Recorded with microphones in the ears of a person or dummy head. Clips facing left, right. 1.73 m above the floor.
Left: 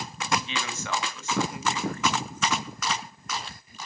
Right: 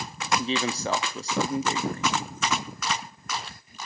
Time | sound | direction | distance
0.4 | a man speaking | 25° right (ahead or behind) | 0.9 m